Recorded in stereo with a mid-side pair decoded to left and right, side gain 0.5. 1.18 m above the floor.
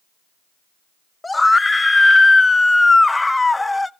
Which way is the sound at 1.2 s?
15° left.